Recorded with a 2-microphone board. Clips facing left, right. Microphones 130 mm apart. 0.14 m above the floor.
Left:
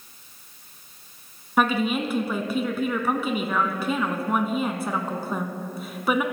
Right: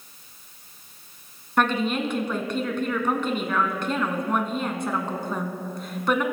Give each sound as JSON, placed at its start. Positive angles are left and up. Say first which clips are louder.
{"t": 1.6, "sound": "a woman speaking", "louder": "left 1 dB", "side_deg": 5, "distance_m": 1.0}